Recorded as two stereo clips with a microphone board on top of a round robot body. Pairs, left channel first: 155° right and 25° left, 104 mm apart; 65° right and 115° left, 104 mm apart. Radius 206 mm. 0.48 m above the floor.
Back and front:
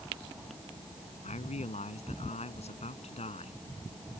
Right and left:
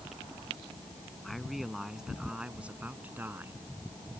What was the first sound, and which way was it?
A man speaking, 155° right.